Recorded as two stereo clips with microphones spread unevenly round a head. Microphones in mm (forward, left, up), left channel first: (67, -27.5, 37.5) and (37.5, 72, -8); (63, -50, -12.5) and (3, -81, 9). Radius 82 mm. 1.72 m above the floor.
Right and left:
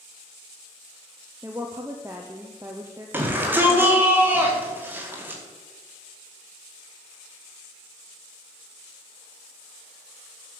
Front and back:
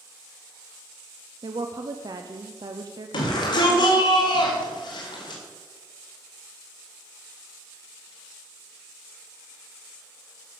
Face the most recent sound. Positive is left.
turn(degrees=30)